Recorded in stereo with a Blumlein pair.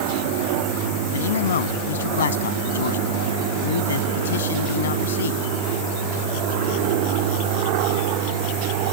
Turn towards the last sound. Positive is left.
turn(degrees=65)